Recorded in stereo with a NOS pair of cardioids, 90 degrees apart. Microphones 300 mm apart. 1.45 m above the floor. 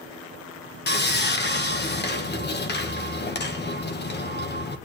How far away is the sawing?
About 1.4 m.